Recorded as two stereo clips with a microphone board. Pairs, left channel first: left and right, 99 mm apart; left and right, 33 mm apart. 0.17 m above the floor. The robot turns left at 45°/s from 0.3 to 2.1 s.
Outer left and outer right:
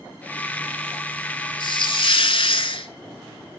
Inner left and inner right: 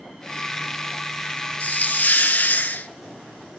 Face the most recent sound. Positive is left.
turn(degrees=60)  # may be behind; listen again after turning